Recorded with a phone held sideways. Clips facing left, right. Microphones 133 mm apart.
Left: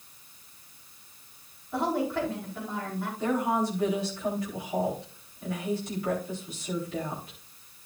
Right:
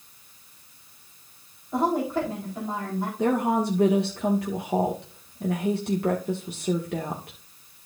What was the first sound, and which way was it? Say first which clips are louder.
A woman speaking: right 4 dB; 20° right (ahead or behind).